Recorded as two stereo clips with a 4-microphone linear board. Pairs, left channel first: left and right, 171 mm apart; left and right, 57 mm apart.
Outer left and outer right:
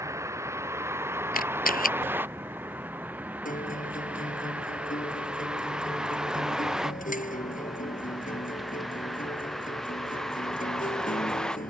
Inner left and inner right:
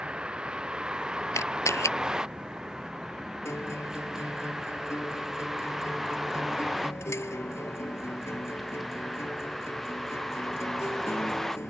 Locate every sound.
0.0 s a vehicle: 15° right (ahead or behind); by 11.7 s 5° left (ahead or behind)
1.3 s a camera shutter: 55° left (ahead or behind)
3.5 s a guitar: 50° left (ahead or behind)